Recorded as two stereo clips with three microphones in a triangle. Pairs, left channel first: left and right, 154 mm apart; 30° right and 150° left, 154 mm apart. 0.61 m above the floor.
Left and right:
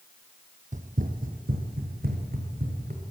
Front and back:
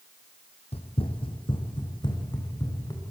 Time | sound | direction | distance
0.7 | running footsteps | 70° right | 1.2 m